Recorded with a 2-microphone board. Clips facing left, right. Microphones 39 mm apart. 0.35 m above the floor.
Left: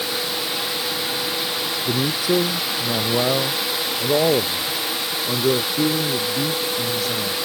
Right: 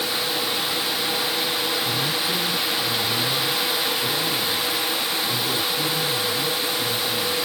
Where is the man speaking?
75° left (ahead or behind).